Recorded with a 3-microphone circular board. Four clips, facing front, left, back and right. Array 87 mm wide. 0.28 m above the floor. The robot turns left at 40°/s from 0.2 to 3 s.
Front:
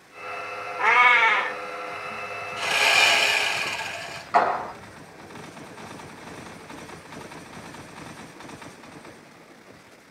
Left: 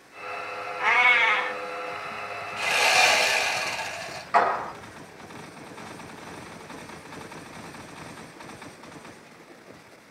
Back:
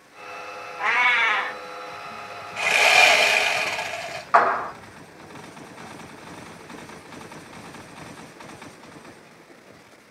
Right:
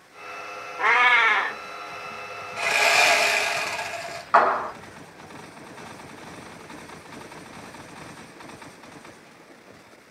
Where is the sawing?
150° right, 1.7 m; by 4.2 s 165° right, 1.7 m.